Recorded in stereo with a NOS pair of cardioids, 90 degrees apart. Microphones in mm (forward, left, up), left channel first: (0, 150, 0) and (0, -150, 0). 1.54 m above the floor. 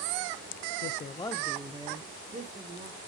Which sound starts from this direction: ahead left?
A man speaking, at 0.8 s.